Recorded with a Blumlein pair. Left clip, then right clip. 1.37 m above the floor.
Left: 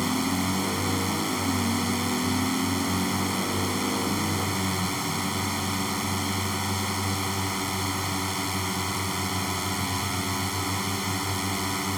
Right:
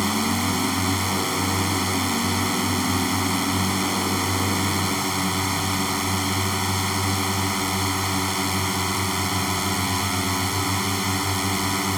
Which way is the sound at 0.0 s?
15° right.